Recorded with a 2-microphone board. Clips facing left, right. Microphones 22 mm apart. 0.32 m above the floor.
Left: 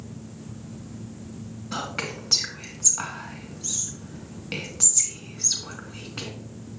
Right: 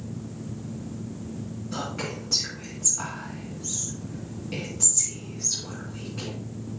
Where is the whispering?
50° left (ahead or behind), 2.5 m.